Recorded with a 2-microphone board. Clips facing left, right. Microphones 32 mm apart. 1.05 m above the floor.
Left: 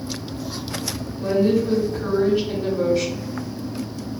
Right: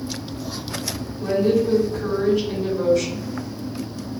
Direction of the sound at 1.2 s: 20° left (ahead or behind).